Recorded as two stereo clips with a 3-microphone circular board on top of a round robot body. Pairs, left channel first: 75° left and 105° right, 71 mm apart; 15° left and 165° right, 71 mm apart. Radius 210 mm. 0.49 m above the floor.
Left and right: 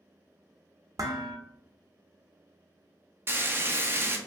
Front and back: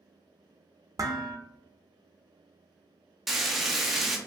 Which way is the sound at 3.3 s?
80° right.